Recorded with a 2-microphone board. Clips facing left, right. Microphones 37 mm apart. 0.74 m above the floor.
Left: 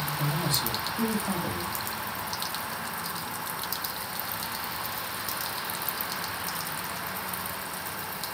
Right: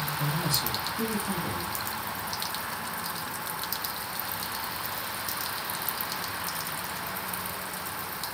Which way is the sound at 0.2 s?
40° left (ahead or behind).